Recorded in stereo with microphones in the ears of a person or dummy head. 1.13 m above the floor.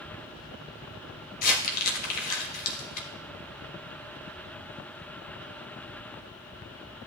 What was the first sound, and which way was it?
Crumpling, 50° left (ahead or behind).